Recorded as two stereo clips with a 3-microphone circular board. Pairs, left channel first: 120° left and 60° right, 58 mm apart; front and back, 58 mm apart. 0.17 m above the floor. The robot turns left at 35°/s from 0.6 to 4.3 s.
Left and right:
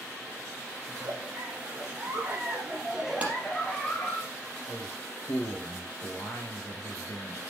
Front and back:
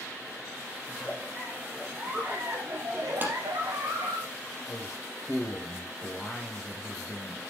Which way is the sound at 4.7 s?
95° left.